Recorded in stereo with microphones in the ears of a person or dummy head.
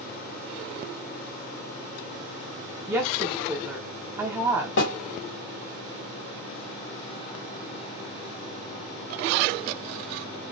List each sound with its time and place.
2.9 s a woman speaking: 15° right (ahead or behind), 0.6 m
4.8 s a snare drum: 65° left (ahead or behind), 1.9 m